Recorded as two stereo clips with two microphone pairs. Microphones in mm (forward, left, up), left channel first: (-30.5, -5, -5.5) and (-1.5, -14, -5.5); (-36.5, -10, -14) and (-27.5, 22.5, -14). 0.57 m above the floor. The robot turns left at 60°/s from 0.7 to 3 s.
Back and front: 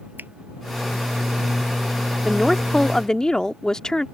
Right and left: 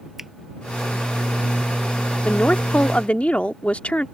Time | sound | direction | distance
0.2 | a finger snap | 10° right | ?
2.2 | a woman speaking | 95° right | ?